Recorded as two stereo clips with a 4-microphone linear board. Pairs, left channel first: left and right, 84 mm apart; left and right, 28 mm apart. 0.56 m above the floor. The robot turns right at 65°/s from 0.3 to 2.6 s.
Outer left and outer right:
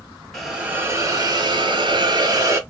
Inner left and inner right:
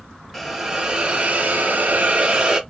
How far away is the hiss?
About 0.7 m.